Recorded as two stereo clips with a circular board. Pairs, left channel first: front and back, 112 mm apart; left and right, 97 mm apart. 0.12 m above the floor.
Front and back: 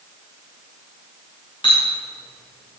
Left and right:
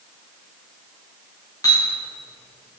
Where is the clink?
40° left, 5 m.